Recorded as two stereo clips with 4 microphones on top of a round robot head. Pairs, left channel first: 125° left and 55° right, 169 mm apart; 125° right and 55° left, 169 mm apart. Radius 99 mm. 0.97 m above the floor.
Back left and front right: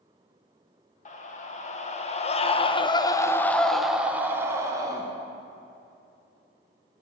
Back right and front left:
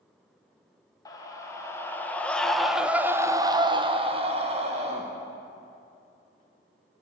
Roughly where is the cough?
I don't hear a cough.